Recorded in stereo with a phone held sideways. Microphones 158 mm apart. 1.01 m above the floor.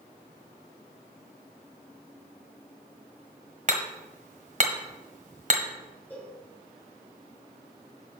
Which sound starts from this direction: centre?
A cowbell, at 6.1 s.